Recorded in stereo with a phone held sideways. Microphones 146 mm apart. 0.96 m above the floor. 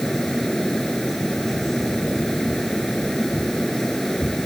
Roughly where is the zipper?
No zipper in this recording.